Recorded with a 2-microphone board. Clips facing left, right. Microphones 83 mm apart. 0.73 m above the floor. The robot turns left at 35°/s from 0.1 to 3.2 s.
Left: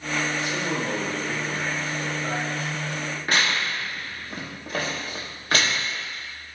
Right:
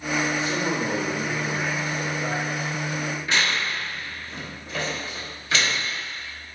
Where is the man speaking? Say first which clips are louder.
Right 2 dB; 30° right, 1.4 m; by 3.2 s 130° right, 1.4 m.